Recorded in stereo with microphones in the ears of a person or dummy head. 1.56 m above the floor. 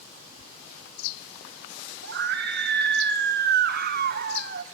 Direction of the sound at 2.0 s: 60° right (ahead or behind).